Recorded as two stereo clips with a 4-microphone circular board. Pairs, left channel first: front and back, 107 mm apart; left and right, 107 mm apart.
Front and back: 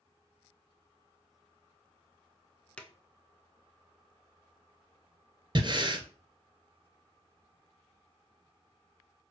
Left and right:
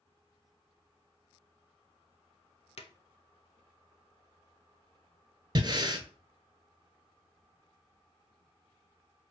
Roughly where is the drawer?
Left.